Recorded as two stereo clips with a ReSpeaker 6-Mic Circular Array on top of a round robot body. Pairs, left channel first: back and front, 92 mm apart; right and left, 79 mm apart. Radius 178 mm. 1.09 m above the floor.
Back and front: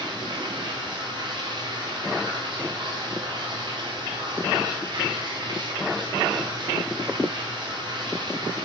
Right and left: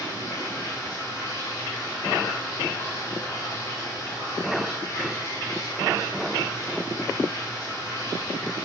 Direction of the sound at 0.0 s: 40° right.